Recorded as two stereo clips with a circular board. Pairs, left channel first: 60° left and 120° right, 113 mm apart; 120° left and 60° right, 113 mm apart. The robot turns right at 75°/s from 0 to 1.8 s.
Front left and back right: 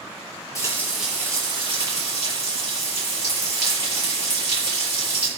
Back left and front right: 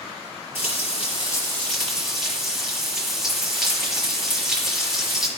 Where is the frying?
120° left, 6 m; by 5.3 s 145° right, 6 m.